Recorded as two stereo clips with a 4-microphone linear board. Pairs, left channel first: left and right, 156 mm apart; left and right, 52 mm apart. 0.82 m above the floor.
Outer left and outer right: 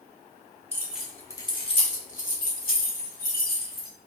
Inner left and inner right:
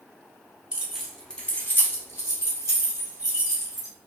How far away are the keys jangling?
About 0.6 m.